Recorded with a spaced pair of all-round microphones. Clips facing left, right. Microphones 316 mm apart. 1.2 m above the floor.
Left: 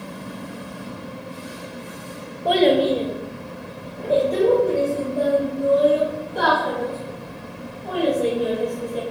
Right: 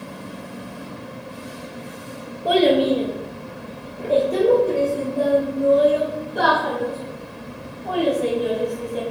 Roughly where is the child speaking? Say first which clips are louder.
Right 1 dB; centre.